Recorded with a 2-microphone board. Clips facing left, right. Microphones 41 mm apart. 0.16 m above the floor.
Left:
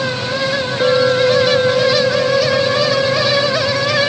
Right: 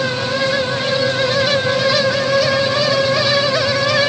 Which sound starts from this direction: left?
A clink, at 0.8 s.